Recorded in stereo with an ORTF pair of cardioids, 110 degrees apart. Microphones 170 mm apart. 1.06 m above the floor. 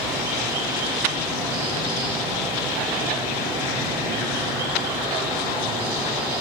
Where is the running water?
15° right, 2.5 m.